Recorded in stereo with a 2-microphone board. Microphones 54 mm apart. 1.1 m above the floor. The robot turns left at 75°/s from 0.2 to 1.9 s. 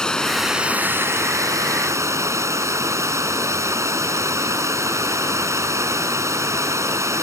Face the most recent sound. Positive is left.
turn(degrees=-115)